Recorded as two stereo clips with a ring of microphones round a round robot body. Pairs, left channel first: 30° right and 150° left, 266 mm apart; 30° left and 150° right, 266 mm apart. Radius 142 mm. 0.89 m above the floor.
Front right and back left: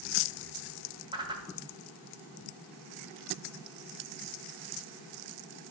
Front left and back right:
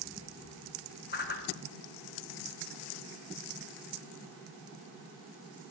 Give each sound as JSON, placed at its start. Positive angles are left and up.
{"t": 1.1, "sound": "a whoosh", "azimuth_deg": 80, "distance_m": 1.1}